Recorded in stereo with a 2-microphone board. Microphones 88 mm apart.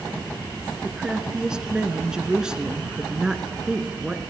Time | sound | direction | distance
0.8 | a woman speaking | 10° right (ahead or behind) | 1.5 m